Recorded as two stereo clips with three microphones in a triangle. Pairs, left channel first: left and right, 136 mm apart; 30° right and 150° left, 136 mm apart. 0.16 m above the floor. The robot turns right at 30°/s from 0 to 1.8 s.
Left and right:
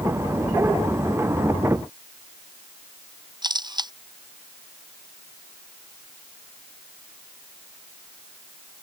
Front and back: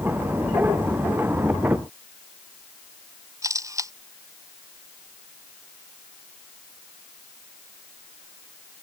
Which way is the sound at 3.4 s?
145° right.